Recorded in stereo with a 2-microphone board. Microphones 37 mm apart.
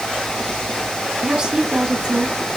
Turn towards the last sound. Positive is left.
turn(degrees=-25)  # may be behind; listen again after turning